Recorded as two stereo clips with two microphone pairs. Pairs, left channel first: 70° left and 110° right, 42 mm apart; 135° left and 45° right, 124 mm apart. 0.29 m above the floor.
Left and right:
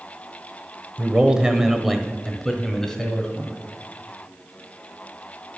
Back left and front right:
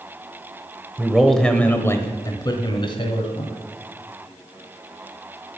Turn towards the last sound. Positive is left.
turn(degrees=135)